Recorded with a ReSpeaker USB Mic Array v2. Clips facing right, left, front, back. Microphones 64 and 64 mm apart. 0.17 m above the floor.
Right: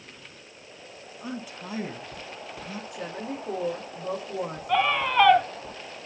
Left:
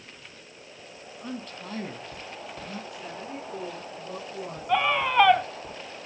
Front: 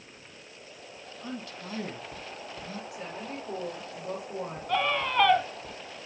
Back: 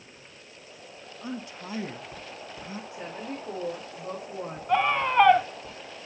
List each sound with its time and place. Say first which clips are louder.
1.2 s a man speaking: right 1 dB, back 2 dB; 150° right, 1.7 m
2.9 s a woman speaking: right 3 dB, back 1 dB; 120° right, 7.5 m
4.7 s a scream: even, back 4 dB; 170° left, 1.0 m